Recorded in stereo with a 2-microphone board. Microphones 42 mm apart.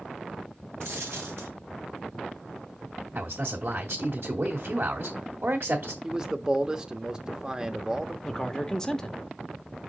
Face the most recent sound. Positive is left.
turn(degrees=15)  # may be behind; listen again after turning